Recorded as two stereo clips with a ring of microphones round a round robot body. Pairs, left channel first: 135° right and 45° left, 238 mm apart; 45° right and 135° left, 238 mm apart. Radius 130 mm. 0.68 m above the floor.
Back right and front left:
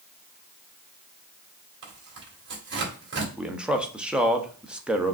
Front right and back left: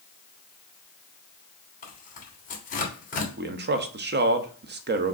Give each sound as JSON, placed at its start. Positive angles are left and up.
{"t": 1.8, "sound": "tearing paper", "azimuth_deg": 10, "distance_m": 2.0}
{"t": 3.4, "sound": "a man speaking", "azimuth_deg": 130, "distance_m": 0.7}